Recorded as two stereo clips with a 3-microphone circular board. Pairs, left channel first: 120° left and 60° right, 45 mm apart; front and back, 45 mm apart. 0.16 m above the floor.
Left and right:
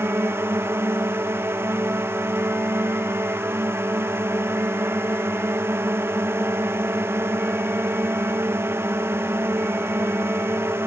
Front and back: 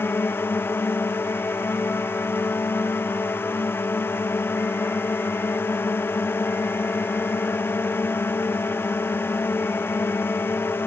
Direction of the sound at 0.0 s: 30° right.